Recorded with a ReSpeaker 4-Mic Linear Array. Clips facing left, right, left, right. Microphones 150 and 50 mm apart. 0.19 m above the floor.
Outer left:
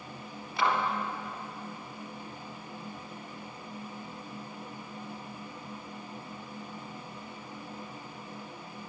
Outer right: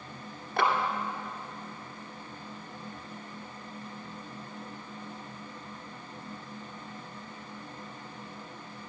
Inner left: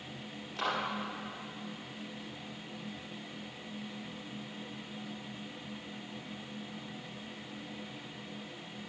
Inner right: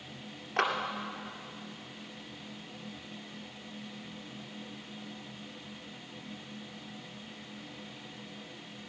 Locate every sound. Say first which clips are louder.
0.6 s a clap: outer right 2 dB, inner right 5 dB; 65° right (ahead or behind), 2 m